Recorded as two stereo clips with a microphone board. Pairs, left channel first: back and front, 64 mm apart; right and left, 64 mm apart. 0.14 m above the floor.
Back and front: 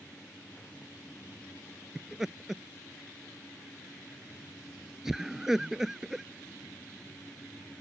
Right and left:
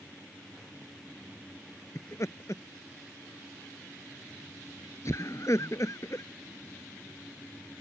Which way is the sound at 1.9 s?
80° right.